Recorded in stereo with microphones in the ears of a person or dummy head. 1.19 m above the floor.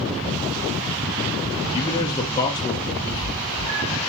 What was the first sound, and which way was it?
A man speaking, 20° left (ahead or behind).